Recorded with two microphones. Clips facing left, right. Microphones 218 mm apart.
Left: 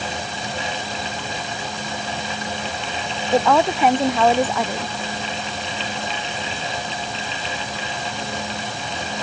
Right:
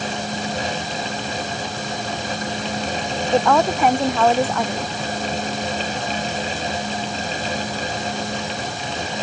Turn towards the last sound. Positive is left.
turn(degrees=0)  # may be behind; listen again after turning